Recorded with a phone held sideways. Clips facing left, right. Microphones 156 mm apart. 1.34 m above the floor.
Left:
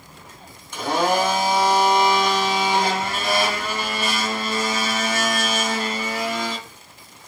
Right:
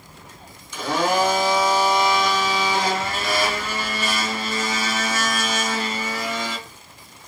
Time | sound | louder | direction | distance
0.7 | a blender | left 1 dB | 65° left (ahead or behind) | 2.5 m